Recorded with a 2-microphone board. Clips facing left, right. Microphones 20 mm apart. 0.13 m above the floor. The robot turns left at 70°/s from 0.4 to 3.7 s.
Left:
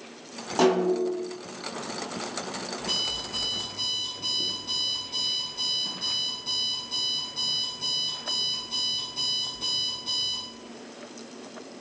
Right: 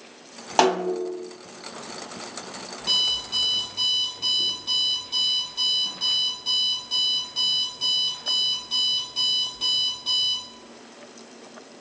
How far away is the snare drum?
About 1.3 m.